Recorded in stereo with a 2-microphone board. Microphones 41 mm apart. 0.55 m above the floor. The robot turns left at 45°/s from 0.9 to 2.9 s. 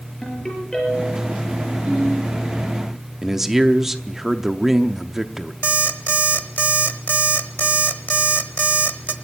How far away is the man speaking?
About 0.7 m.